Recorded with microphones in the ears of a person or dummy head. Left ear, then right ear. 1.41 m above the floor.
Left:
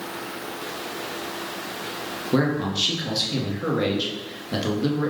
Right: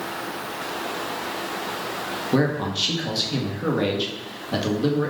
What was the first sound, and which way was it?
A man speaking, 10° right (ahead or behind).